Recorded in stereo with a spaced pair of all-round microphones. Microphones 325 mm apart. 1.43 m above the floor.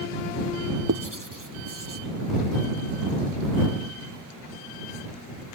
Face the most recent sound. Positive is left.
turn(degrees=-75)  # may be behind; listen again after turning